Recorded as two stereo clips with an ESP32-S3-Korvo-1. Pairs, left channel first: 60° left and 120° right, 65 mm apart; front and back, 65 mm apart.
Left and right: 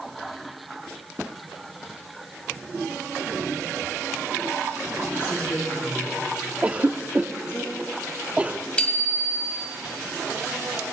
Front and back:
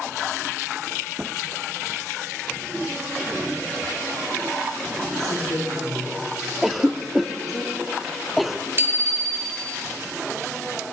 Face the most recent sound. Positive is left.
turn(degrees=135)